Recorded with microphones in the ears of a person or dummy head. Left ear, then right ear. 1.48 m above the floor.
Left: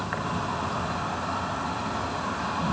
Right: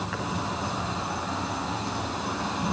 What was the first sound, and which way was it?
An insect, 20° left (ahead or behind).